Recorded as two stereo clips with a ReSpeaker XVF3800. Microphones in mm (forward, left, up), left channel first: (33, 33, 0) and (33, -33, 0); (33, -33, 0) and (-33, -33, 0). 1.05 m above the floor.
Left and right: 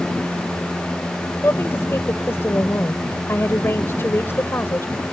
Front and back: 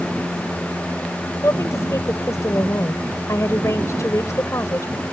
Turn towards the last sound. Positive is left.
turn(degrees=40)